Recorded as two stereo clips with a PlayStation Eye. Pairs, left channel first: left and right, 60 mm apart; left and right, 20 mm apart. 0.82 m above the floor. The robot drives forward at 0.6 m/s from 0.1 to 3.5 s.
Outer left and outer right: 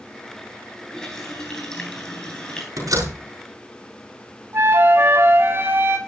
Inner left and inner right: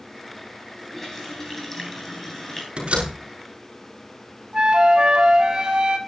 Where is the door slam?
65° right (ahead or behind), 6 m.